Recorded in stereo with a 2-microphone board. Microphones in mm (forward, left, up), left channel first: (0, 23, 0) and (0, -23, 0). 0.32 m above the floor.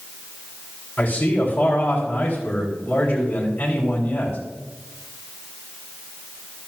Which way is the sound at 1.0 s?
35° left (ahead or behind).